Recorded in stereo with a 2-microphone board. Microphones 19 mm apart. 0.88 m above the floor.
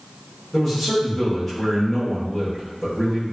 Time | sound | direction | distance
0.5 | a man speaking | 10° left (ahead or behind) | 1.0 m